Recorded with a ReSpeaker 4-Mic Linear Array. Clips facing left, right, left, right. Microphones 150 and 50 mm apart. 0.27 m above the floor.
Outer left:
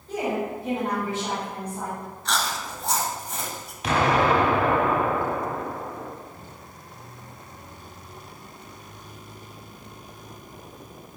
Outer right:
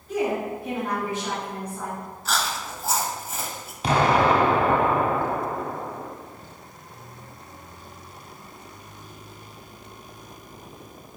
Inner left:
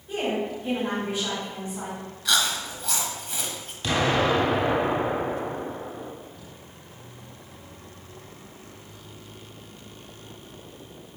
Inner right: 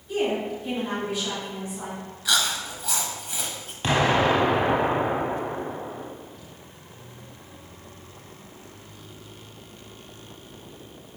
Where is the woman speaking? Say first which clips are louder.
Outer right 2 dB, inner right 2 dB; 35° left (ahead or behind), 1.8 m.